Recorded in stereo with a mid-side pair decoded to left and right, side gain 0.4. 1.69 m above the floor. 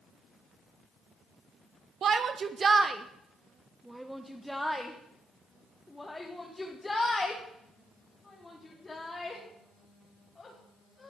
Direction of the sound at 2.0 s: 65° right.